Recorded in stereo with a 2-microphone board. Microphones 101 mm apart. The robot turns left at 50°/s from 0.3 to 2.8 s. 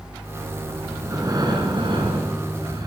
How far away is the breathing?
About 1.5 m.